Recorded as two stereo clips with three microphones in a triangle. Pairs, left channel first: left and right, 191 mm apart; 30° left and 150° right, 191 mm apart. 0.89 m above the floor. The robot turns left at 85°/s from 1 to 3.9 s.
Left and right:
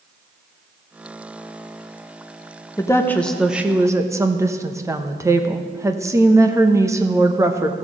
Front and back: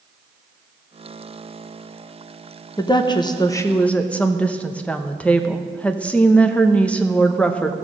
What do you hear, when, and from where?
2.8 s a woman speaking: 50° left, 0.8 m; by 7.8 s 45° right, 0.8 m